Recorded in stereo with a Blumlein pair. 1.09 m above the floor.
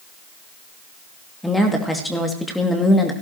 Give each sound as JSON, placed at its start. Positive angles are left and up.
{"t": 1.4, "sound": "a woman speaking", "azimuth_deg": 5, "distance_m": 2.0}